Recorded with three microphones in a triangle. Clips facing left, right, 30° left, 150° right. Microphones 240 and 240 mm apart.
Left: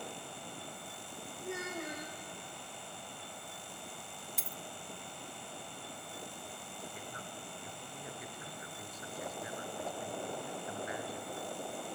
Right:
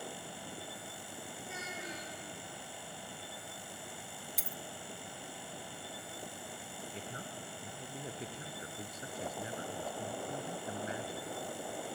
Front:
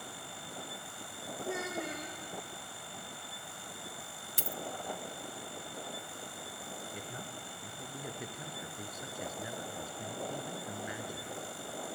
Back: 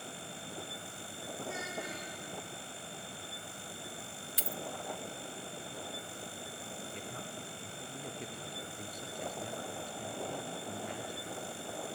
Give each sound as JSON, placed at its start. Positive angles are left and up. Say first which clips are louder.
{"t": 1.4, "sound": "a child speaking", "louder": "left 9 dB, front 6 dB", "azimuth_deg": 60, "distance_m": 5.0}
{"t": 4.4, "sound": "a dropped coin", "louder": "right 2 dB, front 1 dB", "azimuth_deg": 0, "distance_m": 0.5}
{"t": 6.9, "sound": "a man speaking", "louder": "right 2 dB, back 1 dB", "azimuth_deg": -50, "distance_m": 1.5}